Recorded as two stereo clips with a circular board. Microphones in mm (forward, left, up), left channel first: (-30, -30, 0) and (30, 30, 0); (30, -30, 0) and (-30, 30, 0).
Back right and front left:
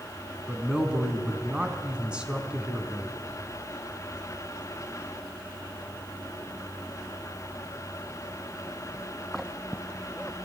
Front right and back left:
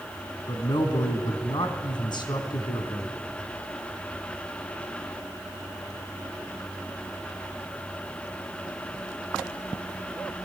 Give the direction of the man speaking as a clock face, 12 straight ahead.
1 o'clock.